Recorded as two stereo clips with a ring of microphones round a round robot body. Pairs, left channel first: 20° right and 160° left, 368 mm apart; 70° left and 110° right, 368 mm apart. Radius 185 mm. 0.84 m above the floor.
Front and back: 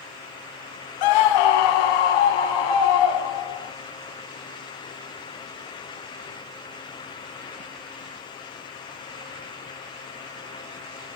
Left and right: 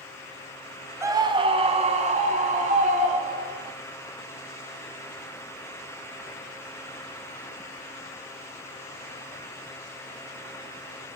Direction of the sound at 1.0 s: 30° right.